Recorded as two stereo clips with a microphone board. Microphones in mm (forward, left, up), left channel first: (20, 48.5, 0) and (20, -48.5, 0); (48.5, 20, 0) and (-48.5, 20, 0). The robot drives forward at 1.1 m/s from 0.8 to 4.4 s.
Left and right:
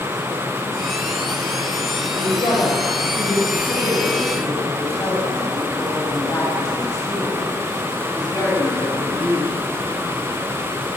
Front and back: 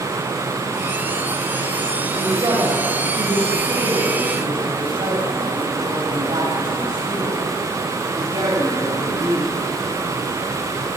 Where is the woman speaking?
135° left, 5.5 m; by 9.5 s 150° left, 7.5 m.